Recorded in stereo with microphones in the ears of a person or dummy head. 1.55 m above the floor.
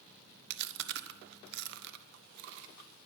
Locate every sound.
0.5 s chewing: 60° right (ahead or behind), 1.1 m